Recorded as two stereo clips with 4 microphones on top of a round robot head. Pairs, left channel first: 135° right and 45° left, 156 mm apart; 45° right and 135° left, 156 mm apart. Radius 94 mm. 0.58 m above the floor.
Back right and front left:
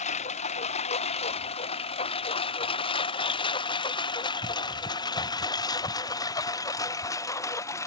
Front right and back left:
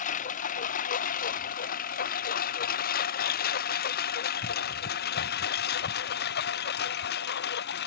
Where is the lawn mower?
85° right; by 7.9 s 65° right.